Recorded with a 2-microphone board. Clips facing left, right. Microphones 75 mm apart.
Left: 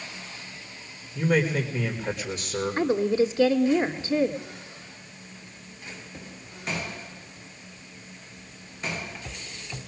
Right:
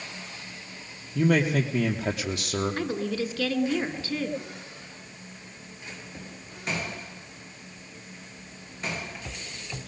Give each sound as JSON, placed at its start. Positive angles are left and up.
{"t": 1.1, "sound": "a man speaking", "side_deg": -70, "distance_m": 3.5}
{"t": 2.8, "sound": "a woman speaking", "side_deg": 20, "distance_m": 1.1}